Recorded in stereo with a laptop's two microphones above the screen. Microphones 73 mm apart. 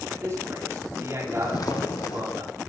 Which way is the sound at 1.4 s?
60° left (ahead or behind).